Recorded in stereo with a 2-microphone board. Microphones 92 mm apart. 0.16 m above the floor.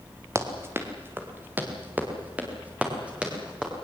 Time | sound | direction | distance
0.3 | running footsteps | 30° right (ahead or behind) | 3 m